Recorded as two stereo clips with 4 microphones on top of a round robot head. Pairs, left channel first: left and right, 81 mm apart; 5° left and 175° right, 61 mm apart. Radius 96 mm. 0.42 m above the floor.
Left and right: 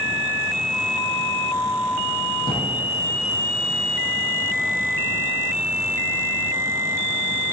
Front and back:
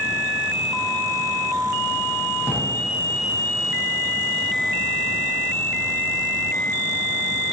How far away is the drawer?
About 4 m.